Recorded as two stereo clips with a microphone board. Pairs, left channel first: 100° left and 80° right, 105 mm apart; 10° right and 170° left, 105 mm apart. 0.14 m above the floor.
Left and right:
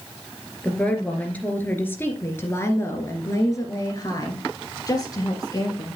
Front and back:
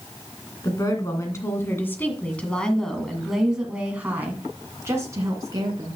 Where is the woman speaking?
25° left, 2.5 m; by 6.0 s 135° left, 2.5 m.